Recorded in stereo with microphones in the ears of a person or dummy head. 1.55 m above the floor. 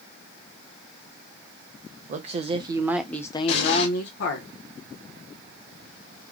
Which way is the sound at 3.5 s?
65° left (ahead or behind).